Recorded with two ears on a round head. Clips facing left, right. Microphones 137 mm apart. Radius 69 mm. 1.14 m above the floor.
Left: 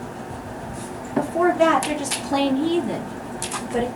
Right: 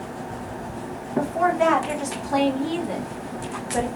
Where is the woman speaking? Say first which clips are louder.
Left 3 dB; 40° left (ahead or behind), 1.5 m.